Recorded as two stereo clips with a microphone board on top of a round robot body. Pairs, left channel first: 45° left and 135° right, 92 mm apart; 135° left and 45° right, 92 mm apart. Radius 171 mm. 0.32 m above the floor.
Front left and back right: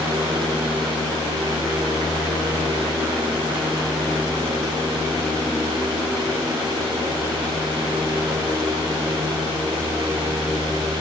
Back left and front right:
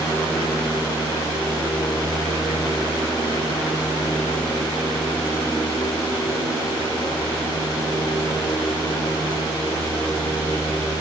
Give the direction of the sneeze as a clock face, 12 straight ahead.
I don't hear a sneeze.